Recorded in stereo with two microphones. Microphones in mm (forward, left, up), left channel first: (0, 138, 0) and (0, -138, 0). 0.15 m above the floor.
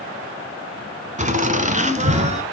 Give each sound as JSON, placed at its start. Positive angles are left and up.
{"t": 1.2, "sound": "laughter", "side_deg": -25, "distance_m": 1.2}